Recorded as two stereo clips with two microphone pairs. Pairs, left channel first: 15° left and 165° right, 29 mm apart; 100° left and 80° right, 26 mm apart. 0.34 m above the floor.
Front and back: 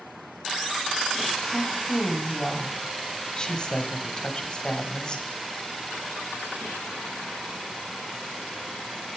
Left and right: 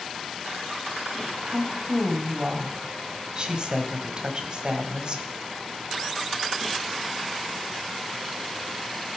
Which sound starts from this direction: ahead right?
A woman speaking, at 1.5 s.